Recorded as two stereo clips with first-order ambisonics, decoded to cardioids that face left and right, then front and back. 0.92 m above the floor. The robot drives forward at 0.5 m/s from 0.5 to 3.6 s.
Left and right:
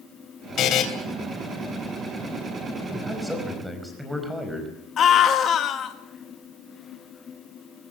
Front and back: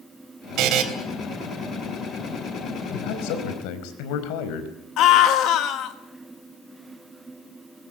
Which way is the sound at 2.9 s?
Straight ahead.